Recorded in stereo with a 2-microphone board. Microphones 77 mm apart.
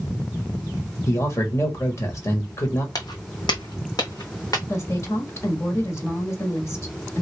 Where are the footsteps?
55° left (ahead or behind), 0.7 m; by 4.6 s 50° left (ahead or behind), 1.5 m.